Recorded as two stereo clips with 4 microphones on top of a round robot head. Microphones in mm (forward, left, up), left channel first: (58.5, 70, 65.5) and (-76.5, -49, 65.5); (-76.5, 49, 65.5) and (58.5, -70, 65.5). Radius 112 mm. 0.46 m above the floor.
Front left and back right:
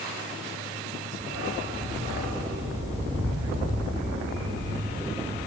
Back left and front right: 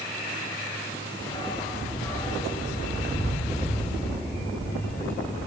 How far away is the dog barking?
About 8.5 m.